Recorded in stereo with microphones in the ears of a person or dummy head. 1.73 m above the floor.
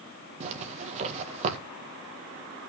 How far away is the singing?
I don't hear singing.